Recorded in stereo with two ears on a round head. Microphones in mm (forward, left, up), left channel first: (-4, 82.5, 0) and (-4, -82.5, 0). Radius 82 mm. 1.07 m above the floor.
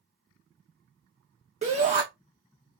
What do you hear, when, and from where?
1.6 s a shout: 35° right (ahead or behind), 1.4 m